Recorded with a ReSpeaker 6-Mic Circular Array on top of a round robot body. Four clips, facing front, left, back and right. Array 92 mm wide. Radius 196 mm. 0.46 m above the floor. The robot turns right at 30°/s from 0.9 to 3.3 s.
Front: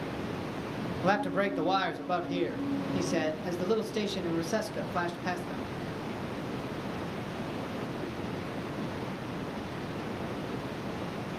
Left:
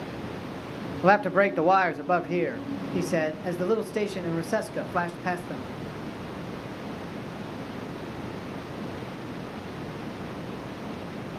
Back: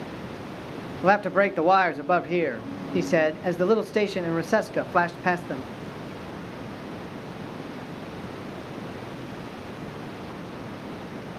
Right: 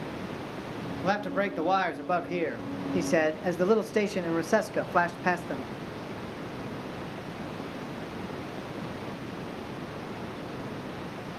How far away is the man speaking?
About 1.0 m.